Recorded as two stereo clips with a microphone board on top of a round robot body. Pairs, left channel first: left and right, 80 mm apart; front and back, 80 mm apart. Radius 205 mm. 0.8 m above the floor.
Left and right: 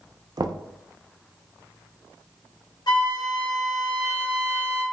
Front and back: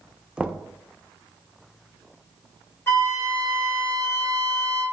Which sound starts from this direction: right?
Knocking, at 0.4 s.